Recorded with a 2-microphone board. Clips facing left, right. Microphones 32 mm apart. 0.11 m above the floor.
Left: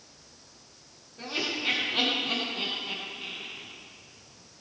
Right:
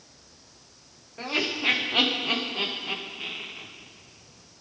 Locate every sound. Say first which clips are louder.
1.2 s laughter: right 4 dB; 75° right (ahead or behind), 7 m